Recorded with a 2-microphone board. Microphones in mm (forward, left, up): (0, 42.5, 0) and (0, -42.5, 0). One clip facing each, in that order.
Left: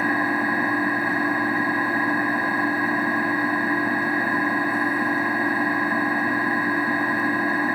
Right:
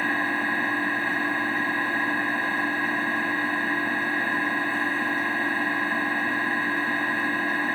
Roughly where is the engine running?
Centre.